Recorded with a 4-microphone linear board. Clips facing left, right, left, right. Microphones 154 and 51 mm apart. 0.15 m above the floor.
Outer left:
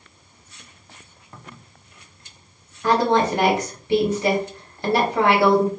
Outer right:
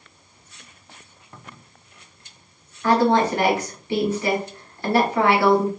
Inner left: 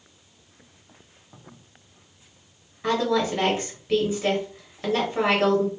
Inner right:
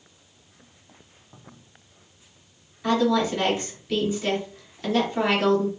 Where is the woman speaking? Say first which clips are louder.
Outer right 1 dB, inner right 1 dB; 20° left (ahead or behind), 2.5 m.